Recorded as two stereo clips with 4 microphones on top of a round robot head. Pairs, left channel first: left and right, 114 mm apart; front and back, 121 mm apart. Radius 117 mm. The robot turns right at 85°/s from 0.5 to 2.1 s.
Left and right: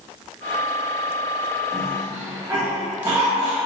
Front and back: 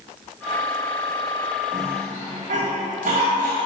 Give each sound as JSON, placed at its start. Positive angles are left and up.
{"t": 1.7, "sound": "a cough", "azimuth_deg": 165, "distance_m": 2.5}